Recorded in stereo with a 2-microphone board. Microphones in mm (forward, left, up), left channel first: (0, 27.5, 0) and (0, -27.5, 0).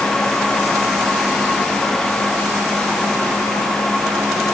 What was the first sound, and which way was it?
Only background noise.